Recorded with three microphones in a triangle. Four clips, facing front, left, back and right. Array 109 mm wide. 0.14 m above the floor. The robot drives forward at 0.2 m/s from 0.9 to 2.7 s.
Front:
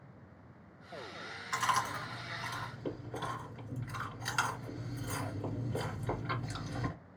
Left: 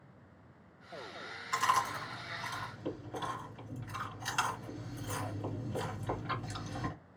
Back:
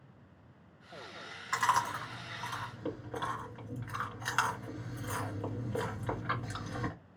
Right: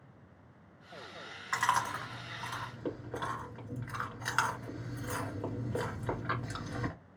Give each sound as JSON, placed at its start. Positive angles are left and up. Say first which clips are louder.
{"t": 1.5, "sound": "chewing", "louder": "even, back 3 dB", "azimuth_deg": -115, "distance_m": 1.4}